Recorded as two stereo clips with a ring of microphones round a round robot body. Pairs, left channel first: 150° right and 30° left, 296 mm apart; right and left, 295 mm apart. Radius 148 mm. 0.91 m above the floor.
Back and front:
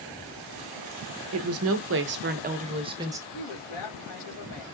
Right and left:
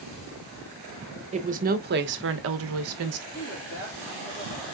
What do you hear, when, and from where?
1.3 s a woman speaking: 30° left, 1.0 m; by 3.2 s 110° left, 1.0 m
3.3 s a woman speaking: 155° right, 2.5 m